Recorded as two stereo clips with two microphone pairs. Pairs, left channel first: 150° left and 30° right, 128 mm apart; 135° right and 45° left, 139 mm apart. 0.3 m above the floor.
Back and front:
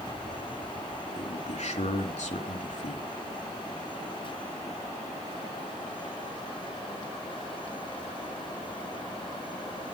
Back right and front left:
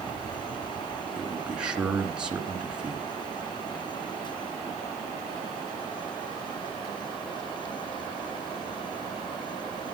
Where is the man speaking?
130° left, 3 m.